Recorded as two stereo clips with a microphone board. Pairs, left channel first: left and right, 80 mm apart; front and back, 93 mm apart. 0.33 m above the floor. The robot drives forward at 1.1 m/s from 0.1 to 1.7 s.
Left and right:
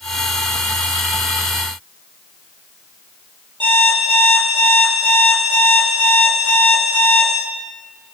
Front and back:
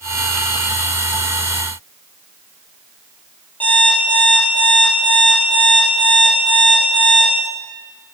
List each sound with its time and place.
3.6 s an alarm clock: 75° right, 5.5 m